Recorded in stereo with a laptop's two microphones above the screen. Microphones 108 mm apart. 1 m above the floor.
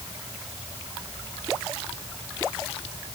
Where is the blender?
I don't hear a blender.